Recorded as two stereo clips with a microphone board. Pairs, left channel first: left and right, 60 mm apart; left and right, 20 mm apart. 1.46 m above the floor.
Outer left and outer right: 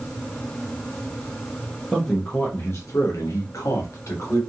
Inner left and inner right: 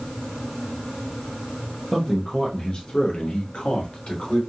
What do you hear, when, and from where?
1.9 s a man speaking: 15° left (ahead or behind), 0.9 m; by 4.4 s 50° left (ahead or behind), 1.3 m